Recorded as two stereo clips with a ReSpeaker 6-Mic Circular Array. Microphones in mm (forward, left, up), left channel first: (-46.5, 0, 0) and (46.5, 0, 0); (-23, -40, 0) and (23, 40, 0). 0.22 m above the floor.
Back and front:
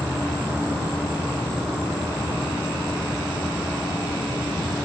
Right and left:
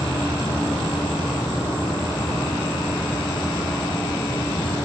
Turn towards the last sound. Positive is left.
turn(degrees=-120)